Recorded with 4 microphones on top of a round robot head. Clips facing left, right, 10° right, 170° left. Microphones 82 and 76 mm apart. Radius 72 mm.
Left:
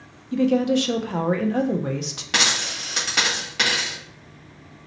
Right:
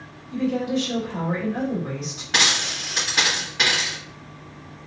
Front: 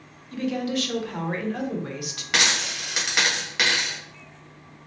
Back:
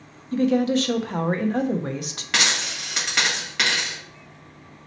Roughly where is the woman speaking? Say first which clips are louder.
Left 4 dB, back 7 dB; behind left.